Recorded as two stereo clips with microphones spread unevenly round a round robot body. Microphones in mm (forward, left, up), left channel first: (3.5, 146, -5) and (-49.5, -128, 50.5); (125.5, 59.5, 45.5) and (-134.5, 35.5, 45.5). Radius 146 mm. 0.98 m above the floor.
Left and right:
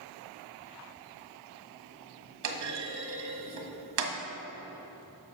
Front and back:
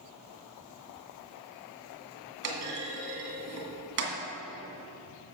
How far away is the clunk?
About 1.7 m.